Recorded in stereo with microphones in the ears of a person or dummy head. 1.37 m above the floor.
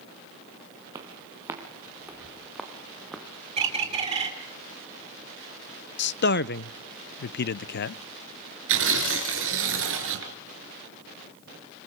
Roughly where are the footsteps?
Centre.